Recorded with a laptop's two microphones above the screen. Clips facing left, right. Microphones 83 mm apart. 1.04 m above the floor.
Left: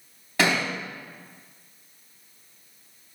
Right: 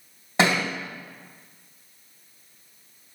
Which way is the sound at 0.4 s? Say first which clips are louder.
Right 2 dB; 25° right (ahead or behind).